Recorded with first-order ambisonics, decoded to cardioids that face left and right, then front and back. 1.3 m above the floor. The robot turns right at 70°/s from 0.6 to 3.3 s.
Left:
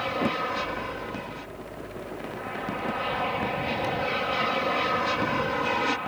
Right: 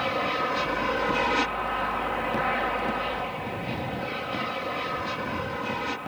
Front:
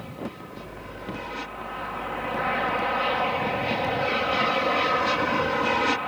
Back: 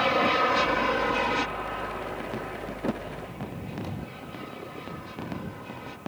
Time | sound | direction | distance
0.0 | an aircraft | 170° right | ?